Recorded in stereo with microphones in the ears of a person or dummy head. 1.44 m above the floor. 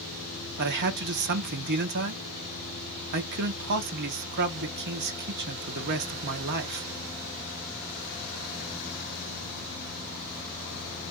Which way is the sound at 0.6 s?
55° right (ahead or behind).